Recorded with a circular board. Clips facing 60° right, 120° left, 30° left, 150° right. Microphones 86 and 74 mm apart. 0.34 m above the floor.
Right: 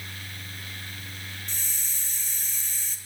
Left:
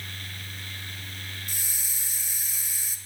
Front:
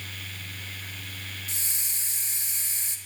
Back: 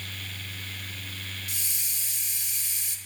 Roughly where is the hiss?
Ahead left.